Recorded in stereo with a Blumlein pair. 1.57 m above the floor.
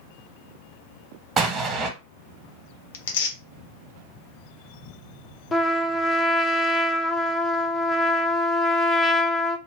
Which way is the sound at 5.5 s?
15° left.